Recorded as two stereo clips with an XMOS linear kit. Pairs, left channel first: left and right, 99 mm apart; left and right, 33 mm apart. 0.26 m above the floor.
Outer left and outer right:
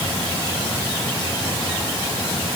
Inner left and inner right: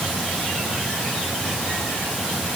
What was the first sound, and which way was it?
Only background noise.